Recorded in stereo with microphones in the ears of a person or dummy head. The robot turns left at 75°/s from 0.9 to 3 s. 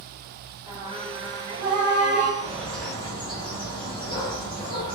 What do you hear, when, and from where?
0.7 s singing: 25° right, 1.8 m; by 2.3 s 130° right, 1.8 m
2.4 s a bird: 165° right, 1.4 m; by 5.0 s 150° left, 1.4 m